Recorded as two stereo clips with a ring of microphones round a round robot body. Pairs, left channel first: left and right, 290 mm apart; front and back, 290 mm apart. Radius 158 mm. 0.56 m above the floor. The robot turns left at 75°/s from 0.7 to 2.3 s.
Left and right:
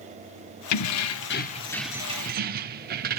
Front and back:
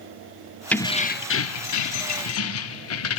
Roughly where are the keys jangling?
Left.